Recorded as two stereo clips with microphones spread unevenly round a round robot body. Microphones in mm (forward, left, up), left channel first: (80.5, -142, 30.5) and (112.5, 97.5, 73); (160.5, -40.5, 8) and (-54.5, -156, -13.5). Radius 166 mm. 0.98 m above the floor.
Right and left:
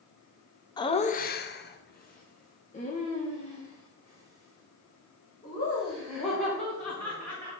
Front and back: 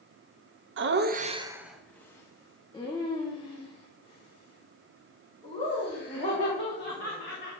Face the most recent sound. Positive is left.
turn(degrees=-30)